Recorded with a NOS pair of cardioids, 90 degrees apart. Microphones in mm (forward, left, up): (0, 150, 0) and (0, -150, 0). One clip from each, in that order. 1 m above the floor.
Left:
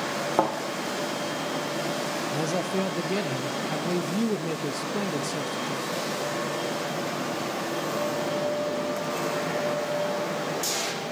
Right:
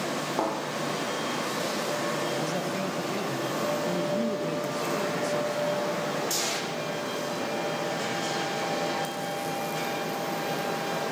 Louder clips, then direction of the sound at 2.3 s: Left 2 dB; 30° left.